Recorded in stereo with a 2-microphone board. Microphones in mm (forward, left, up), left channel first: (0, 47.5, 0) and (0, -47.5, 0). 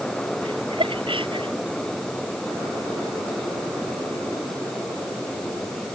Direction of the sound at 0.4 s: 65° right (ahead or behind).